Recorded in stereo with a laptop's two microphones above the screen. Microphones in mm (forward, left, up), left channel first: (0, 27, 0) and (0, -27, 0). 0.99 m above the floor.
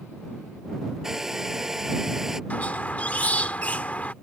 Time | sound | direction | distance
1.0 | a hair dryer | 5° right (ahead or behind) | ?
2.5 | a squeak | 30° left (ahead or behind) | ?